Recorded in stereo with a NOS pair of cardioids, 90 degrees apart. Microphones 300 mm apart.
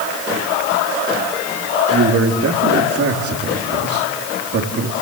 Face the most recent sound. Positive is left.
turn(degrees=-50)